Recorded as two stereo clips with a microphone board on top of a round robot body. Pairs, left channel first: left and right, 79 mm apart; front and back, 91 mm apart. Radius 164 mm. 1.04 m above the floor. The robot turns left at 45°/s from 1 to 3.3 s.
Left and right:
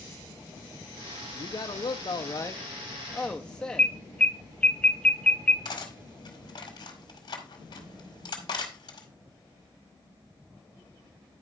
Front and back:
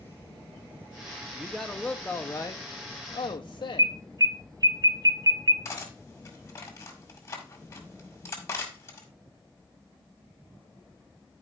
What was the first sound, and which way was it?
A man speaking, 100° left.